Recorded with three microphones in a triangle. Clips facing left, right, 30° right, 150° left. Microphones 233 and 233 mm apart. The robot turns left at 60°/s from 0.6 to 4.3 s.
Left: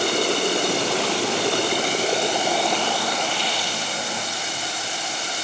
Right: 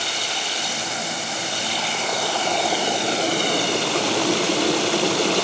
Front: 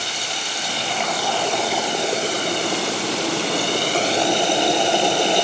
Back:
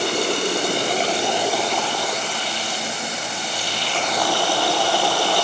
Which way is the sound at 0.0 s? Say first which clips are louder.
Left 11 dB, back 12 dB; 120° left.